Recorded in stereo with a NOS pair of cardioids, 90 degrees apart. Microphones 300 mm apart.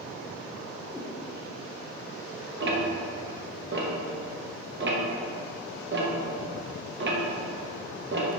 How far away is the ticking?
About 1.7 m.